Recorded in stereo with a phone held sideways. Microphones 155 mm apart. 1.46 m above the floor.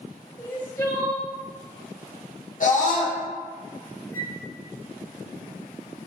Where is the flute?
15° left (ahead or behind), 0.7 m.